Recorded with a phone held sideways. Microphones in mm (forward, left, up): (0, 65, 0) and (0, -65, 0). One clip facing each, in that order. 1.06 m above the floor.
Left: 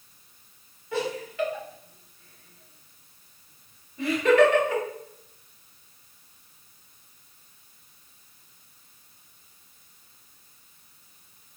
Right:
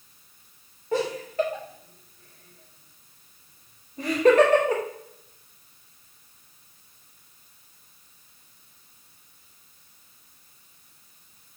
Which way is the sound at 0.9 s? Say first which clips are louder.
Right 4 dB; 40° right (ahead or behind).